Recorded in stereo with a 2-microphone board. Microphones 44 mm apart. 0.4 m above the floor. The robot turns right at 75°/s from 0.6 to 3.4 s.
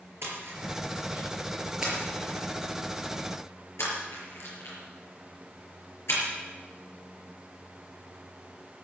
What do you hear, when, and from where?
0.2 s a splash: 70° right (ahead or behind), 5.5 m; by 6.2 s 75° left (ahead or behind), 5.5 m